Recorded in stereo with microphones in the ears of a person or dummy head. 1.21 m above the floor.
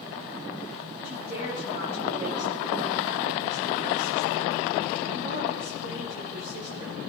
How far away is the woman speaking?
About 4 m.